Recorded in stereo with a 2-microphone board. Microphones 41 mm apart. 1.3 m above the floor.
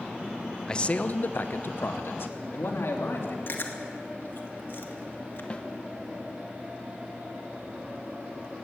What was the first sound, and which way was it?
A man speaking, 15° left (ahead or behind).